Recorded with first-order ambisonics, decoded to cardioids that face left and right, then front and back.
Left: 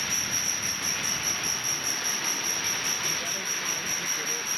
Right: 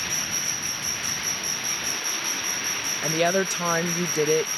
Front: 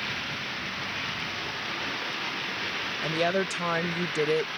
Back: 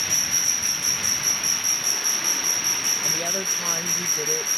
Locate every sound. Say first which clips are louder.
0.0 s an insect: right 1 dB, back 9 dB; straight behind
3.0 s a woman speaking: right 7 dB, back 2 dB; 70° right